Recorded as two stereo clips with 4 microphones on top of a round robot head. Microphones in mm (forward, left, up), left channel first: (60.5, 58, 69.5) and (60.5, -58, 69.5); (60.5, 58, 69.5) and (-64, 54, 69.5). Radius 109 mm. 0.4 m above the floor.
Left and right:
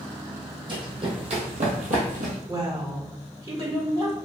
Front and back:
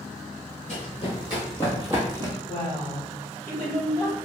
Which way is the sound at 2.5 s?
60° right.